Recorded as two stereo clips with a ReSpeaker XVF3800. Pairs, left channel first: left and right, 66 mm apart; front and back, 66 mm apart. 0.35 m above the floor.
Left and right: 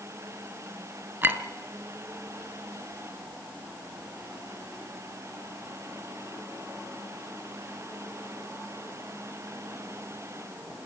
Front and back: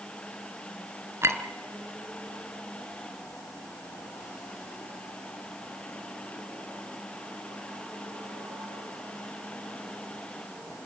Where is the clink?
135° right, 1.7 m.